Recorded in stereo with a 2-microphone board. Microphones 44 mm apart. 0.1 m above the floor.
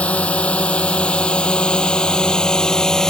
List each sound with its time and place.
0.0 s a drone: 30° left (ahead or behind); by 3.1 s 15° left (ahead or behind)